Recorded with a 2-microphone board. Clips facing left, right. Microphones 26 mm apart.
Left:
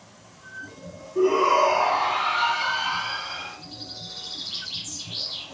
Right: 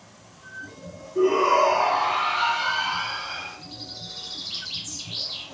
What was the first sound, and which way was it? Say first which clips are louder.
A shout: even; 10° right (ahead or behind).